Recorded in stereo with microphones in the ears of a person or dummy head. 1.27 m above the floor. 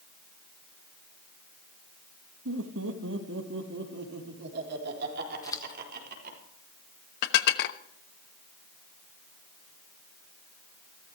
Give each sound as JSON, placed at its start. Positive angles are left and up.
{"t": 2.5, "sound": "laughter", "side_deg": -80, "distance_m": 2.0}
{"t": 5.4, "sound": "scissors", "side_deg": 20, "distance_m": 1.3}
{"t": 7.2, "sound": "dishes clattering", "side_deg": 65, "distance_m": 1.0}